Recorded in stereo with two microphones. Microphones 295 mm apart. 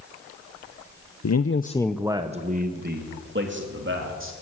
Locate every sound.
1.2 s a man speaking: 65° left (ahead or behind), 0.8 m; by 4.3 s 45° right (ahead or behind), 3.5 m